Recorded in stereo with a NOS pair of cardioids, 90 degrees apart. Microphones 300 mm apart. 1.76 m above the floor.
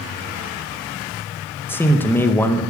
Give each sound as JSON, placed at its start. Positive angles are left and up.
{"t": 1.7, "sound": "a man speaking", "azimuth_deg": 5, "distance_m": 1.8}